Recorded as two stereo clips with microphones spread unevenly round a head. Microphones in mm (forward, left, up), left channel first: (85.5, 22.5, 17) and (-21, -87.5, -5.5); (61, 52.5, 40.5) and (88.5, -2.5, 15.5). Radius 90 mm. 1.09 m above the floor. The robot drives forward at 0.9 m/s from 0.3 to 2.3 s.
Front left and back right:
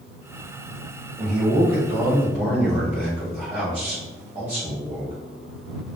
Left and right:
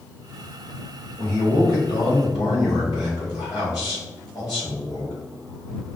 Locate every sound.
1.2 s a man speaking: 165° left, 1.7 m; by 5.1 s 170° left, 2.5 m